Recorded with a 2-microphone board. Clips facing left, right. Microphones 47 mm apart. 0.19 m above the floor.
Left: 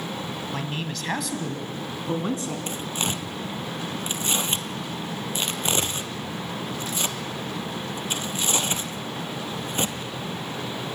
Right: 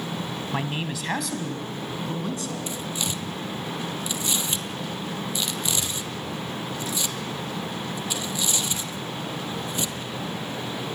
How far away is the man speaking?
About 1.1 m.